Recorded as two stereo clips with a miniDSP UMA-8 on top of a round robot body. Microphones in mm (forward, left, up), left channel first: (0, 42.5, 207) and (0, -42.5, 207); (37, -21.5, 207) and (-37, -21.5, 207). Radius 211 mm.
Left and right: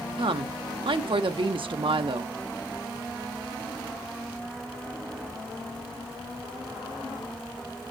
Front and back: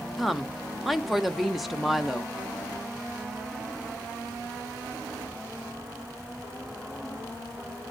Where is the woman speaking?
90° right, 0.8 m.